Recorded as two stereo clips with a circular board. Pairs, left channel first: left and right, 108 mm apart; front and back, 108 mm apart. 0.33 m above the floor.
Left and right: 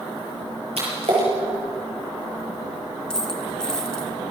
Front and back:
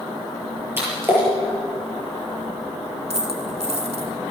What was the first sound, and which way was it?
A splash, 110° right.